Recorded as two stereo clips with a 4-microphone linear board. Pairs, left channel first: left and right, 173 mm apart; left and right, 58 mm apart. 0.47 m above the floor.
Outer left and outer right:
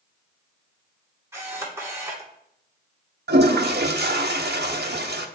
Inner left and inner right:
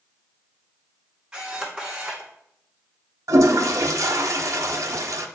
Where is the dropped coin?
No dropped coin in this recording.